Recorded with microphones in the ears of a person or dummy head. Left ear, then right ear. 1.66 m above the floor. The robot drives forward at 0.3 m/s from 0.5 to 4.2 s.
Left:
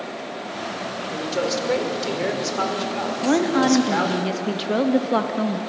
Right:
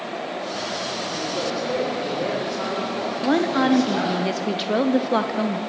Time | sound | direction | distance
1.1 | a man speaking | 65° left (ahead or behind) | 5 m
3.2 | a woman speaking | 5° right (ahead or behind) | 1.2 m